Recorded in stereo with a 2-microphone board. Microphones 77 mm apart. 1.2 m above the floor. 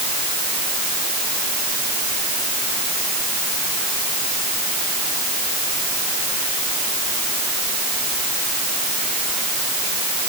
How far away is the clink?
I don't hear a clink.